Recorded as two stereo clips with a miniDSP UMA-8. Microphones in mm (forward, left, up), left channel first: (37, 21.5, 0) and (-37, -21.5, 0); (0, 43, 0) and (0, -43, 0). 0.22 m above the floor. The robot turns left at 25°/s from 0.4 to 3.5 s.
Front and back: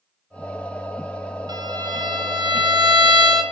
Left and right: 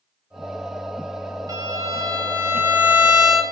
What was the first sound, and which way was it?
A violin, 125° right.